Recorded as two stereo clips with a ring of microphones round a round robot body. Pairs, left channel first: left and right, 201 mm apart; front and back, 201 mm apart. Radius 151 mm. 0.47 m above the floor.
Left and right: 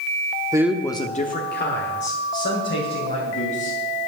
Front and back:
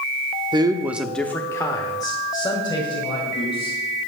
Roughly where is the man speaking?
Behind right.